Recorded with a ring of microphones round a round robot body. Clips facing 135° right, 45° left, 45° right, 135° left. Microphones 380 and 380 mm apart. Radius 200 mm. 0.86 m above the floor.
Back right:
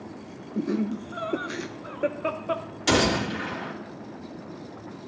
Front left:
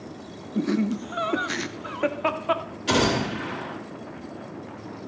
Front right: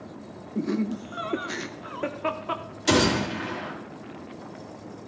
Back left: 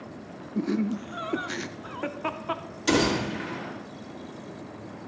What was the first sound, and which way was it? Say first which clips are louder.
Laughter: front left 3 dB, even; 65° left.